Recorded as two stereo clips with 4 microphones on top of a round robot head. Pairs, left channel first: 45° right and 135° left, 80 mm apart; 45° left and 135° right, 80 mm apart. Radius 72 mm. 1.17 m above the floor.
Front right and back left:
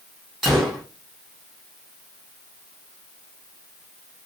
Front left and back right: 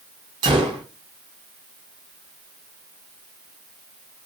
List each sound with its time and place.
0.4 s a gunshot: 140° right, 0.6 m